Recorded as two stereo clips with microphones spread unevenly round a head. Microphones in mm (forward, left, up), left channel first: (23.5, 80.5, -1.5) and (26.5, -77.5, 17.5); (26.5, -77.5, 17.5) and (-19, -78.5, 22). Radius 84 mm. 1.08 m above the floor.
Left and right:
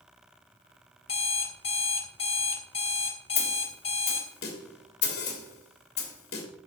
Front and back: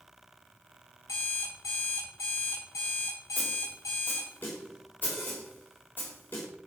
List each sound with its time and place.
1.1 s an alarm clock: 35° left, 1.8 m
3.4 s a snare drum: 75° left, 2.5 m